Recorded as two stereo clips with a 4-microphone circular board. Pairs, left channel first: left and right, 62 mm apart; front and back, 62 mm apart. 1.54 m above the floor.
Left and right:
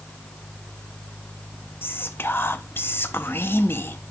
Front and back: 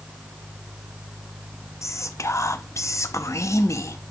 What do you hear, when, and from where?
1.8 s whispering: 35° left, 0.5 m